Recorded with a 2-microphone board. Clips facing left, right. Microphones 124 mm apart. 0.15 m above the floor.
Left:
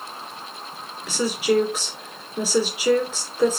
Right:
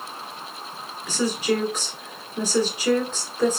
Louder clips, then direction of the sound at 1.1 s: Left 2 dB; 5° left (ahead or behind).